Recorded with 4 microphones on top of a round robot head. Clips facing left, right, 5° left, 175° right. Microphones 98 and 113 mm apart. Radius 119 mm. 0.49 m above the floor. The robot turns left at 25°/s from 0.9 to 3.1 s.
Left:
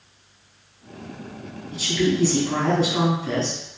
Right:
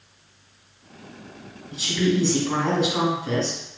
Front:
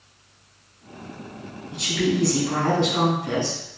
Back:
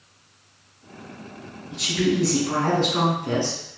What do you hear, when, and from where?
1.7 s a woman speaking: 120° right, 1.0 m; by 3.6 s 155° right, 1.0 m